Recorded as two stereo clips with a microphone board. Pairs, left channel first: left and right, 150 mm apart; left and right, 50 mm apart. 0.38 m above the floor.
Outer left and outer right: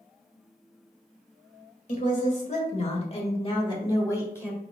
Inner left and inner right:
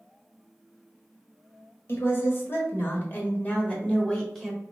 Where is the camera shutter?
No camera shutter in this recording.